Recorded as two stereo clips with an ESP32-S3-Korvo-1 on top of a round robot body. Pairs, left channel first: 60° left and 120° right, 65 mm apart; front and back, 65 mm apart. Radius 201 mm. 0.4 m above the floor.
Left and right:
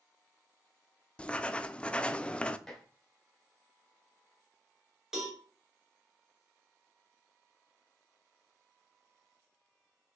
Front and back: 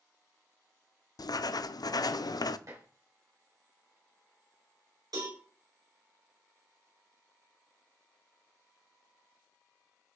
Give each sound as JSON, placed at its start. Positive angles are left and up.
{"t": 1.2, "sound": "writing", "azimuth_deg": -15, "distance_m": 0.5}
{"t": 2.7, "sound": "dishes clattering", "azimuth_deg": 140, "distance_m": 2.5}
{"t": 5.1, "sound": "a cowbell", "azimuth_deg": 155, "distance_m": 3.5}